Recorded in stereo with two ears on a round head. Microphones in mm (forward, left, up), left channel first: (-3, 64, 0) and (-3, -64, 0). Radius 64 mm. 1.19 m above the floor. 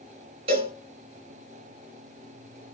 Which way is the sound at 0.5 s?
40° right (ahead or behind).